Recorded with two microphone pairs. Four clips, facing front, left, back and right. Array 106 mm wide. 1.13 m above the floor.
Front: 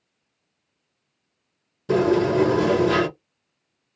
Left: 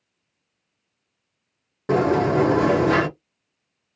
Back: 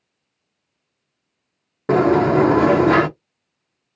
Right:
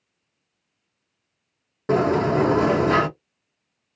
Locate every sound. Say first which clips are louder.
1.9 s a sliding door: left 1 dB, back 4 dB; straight behind, 0.8 m